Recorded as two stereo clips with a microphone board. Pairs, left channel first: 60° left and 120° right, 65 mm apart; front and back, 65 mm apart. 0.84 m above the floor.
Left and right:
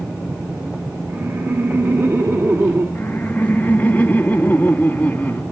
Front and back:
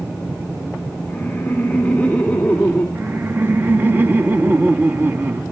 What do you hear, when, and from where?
1.1 s laughter: 70° right, 2.5 m
3.0 s laughter: 125° left, 1.6 m